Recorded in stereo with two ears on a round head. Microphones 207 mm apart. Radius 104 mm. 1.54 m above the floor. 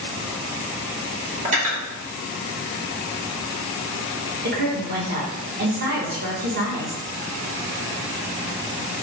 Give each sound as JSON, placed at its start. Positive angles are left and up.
{"t": 1.4, "sound": "cutlery clinking", "side_deg": -30, "distance_m": 1.3}
{"t": 4.4, "sound": "a woman speaking", "side_deg": -40, "distance_m": 1.0}